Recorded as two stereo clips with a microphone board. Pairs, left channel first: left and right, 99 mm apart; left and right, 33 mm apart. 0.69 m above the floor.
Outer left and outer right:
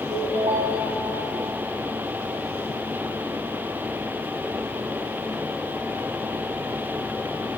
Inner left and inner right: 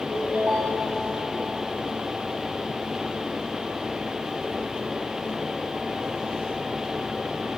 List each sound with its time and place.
0.1 s a ringtone: 75° right (ahead or behind), 2.5 m